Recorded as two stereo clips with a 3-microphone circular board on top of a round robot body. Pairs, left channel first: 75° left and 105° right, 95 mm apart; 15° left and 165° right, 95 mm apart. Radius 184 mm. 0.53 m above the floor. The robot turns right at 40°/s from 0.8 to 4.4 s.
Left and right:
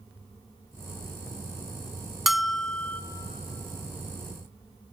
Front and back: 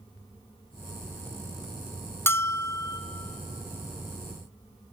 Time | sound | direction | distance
2.3 | a bell | 20° right | 0.9 m